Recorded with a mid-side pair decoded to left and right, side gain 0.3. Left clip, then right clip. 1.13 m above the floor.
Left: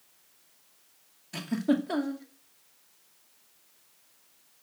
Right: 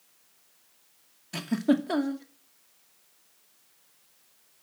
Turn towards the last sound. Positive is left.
turn(degrees=-35)